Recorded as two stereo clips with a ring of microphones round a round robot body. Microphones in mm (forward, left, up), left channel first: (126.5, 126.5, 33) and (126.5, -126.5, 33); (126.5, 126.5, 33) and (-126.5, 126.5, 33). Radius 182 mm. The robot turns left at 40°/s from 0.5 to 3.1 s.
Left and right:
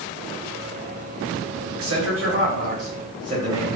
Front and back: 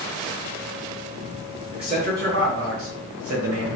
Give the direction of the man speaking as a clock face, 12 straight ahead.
4 o'clock.